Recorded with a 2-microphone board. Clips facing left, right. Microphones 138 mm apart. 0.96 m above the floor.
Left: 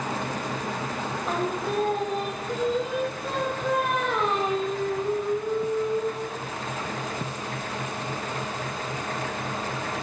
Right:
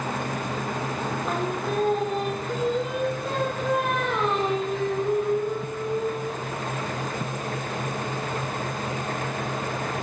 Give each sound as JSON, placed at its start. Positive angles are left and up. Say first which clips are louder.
{"t": 1.2, "sound": "singing", "louder": "left 2 dB", "side_deg": 0, "distance_m": 2.0}